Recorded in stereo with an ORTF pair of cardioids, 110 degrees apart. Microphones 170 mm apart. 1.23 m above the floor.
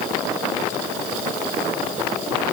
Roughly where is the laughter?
No laughter in this recording.